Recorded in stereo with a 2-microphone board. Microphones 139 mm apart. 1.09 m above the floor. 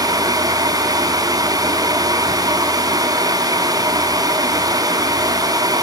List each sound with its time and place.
Only background noise.